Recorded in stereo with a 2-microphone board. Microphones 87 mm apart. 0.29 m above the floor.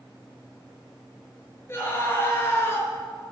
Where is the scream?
30° left (ahead or behind), 5 m.